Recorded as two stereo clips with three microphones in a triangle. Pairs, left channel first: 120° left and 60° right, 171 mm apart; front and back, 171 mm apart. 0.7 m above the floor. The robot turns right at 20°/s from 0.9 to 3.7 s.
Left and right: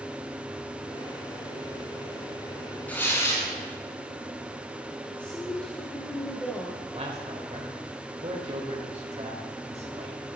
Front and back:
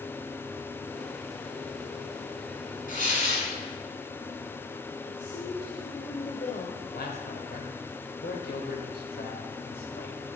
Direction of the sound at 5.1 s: 40° left.